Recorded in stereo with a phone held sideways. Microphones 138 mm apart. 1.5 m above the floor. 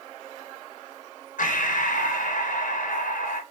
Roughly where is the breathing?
Left.